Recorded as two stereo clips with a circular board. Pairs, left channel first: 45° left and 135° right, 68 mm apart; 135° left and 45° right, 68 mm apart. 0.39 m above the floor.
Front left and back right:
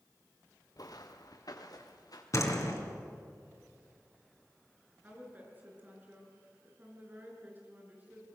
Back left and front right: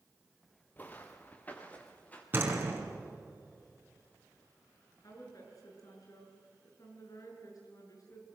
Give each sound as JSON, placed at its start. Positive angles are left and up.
{"t": 0.8, "sound": "footsteps", "azimuth_deg": 70, "distance_m": 1.9}
{"t": 2.3, "sound": "a door slam", "azimuth_deg": 10, "distance_m": 3.5}
{"t": 5.0, "sound": "a woman speaking", "azimuth_deg": 165, "distance_m": 6.0}